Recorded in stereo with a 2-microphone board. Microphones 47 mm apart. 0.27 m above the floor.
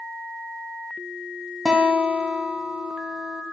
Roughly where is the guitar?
Centre.